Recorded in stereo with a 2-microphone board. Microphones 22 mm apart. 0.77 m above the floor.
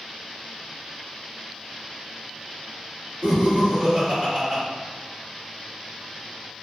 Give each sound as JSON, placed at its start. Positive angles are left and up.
{"t": 3.2, "sound": "laughter", "side_deg": -55, "distance_m": 1.8}